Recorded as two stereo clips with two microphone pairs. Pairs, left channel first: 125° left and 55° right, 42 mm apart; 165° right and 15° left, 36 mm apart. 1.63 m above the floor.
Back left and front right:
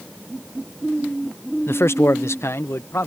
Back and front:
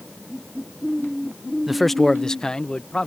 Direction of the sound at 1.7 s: 95° left.